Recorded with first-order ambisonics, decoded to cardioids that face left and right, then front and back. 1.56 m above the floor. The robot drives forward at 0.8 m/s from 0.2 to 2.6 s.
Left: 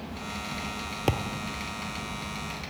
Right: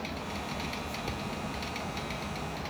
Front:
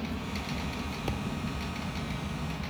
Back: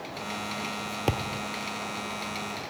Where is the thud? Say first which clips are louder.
Left 6 dB, back 9 dB; 120° left; by 1.5 s 130° left.